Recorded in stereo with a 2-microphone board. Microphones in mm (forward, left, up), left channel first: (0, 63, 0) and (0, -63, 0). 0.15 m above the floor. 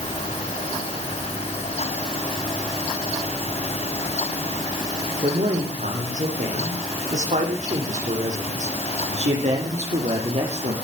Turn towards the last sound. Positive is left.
turn(degrees=-60)  # may be behind; listen again after turning